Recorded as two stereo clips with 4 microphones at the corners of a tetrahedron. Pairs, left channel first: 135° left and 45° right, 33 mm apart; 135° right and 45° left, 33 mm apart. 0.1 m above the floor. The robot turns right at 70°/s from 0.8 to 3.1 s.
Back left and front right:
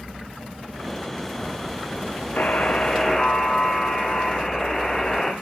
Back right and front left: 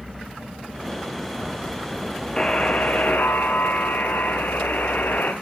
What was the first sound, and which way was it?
A buzzer, 160° left.